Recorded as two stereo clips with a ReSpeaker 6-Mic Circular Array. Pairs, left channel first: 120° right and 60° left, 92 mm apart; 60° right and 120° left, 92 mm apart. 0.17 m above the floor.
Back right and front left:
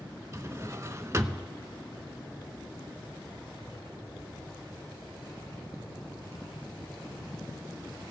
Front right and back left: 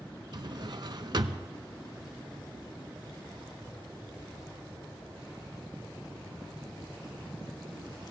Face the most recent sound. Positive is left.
turn(degrees=110)